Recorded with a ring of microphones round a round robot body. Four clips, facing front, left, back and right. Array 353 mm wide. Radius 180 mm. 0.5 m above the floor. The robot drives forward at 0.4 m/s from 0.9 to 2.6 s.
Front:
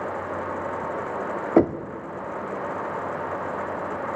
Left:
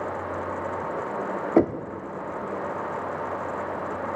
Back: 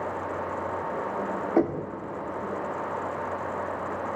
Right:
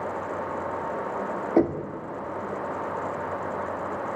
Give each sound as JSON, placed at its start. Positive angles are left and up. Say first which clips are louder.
{"t": 1.6, "sound": "knocking", "louder": "left 1 dB, front 5 dB", "azimuth_deg": 15, "distance_m": 0.7}